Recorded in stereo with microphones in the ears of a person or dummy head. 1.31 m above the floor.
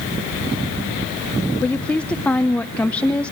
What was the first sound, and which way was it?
A woman speaking, 5° left (ahead or behind).